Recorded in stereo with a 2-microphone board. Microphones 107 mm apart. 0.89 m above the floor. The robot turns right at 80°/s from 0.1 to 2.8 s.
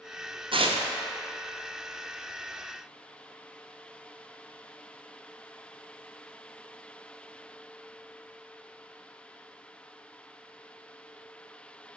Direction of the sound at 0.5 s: 55° right (ahead or behind).